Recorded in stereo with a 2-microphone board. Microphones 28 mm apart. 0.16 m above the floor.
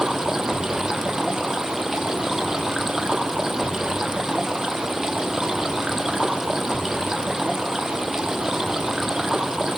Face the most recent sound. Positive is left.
turn(degrees=-20)  # may be behind; listen again after turning